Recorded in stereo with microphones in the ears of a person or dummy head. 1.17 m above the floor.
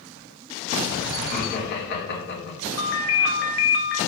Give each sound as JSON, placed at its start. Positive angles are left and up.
{"t": 1.2, "sound": "laughter", "side_deg": 55, "distance_m": 2.5}
{"t": 2.8, "sound": "a ringtone", "side_deg": 65, "distance_m": 1.3}